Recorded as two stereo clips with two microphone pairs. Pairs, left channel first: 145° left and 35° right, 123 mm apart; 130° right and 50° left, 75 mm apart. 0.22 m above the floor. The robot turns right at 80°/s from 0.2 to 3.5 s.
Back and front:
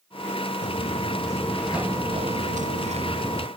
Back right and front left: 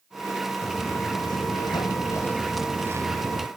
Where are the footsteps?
145° left; by 3.5 s 40° left.